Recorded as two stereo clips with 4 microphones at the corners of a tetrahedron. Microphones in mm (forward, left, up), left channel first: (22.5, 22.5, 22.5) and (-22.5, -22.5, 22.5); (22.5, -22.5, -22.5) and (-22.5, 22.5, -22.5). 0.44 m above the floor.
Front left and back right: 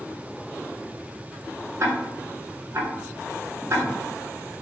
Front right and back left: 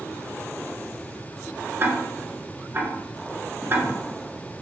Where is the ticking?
170° right, 1.0 m.